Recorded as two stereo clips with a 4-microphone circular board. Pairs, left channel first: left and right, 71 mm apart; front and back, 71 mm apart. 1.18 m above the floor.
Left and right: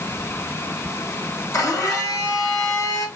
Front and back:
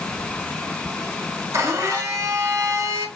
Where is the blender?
130° left, 1.0 m.